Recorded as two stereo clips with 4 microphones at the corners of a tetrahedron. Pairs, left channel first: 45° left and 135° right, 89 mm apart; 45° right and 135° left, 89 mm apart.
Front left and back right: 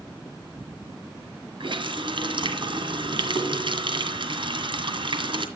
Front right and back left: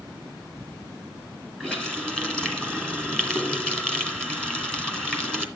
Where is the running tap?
125° right, 2 m.